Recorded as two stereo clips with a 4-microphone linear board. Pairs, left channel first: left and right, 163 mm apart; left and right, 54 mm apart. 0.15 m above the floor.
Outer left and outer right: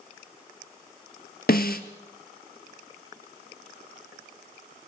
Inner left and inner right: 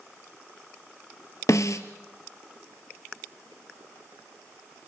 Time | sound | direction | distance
1.5 | a snare drum | 70° left (ahead or behind) | 1.3 m